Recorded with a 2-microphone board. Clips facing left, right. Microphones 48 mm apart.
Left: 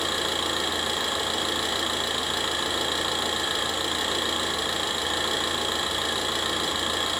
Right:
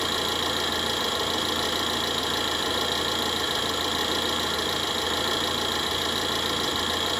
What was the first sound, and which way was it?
An engine running, 10° left (ahead or behind).